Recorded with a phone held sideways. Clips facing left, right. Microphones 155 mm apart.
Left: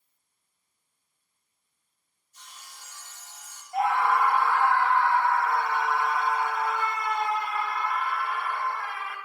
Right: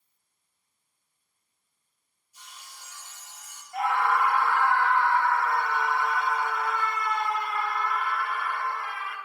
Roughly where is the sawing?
Centre.